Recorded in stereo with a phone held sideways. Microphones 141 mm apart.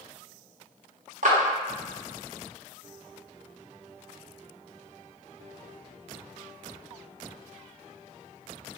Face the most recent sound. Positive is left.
turn(degrees=-65)  # may be behind; listen again after turning